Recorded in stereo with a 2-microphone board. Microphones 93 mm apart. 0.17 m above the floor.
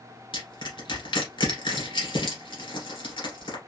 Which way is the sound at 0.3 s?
60° left (ahead or behind).